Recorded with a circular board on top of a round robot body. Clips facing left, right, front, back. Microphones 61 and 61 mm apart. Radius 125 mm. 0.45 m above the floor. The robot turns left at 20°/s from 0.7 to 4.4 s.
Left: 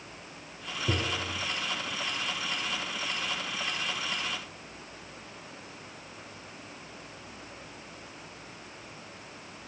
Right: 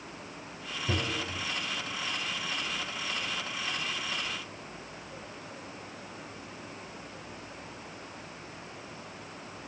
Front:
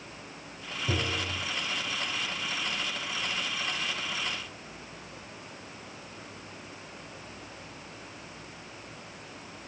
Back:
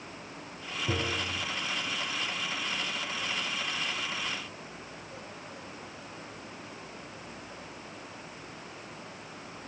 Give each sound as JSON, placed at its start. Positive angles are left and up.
{"t": 0.9, "sound": "tapping", "azimuth_deg": 110, "distance_m": 6.0}